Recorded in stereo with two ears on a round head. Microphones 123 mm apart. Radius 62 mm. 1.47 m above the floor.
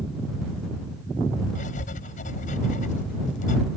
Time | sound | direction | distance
1.6 | writing | 60° left (ahead or behind) | ?